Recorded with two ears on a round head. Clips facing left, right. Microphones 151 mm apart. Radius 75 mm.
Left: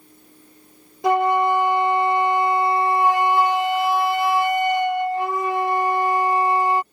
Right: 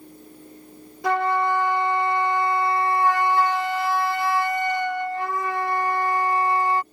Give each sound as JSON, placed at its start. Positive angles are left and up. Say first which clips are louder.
{"t": 1.0, "sound": "a flute", "louder": "left 4 dB", "side_deg": 15}